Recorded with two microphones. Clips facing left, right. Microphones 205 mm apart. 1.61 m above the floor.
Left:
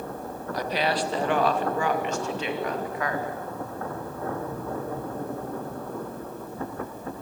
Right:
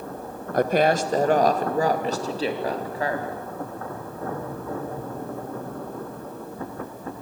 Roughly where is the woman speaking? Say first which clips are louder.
Right 7 dB; right.